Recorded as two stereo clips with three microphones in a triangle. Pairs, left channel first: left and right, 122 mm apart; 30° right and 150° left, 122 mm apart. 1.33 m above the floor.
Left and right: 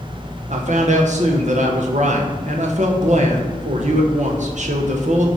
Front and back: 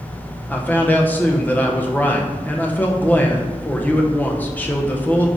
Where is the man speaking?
105° right, 1.0 m.